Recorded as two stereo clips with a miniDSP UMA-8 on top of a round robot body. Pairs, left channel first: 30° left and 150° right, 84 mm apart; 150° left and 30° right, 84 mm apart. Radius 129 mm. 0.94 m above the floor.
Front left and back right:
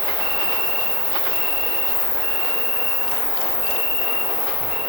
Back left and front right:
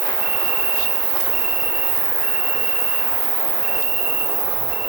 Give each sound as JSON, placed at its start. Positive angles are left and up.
{"t": 0.0, "sound": "an insect", "azimuth_deg": -15, "distance_m": 4.0}